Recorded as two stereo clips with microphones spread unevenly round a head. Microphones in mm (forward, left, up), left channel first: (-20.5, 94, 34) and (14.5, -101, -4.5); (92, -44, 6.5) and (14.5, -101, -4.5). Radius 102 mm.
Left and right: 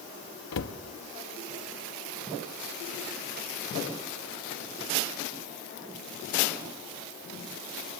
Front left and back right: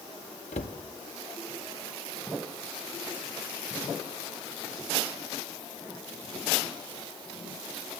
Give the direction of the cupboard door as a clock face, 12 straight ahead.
9 o'clock.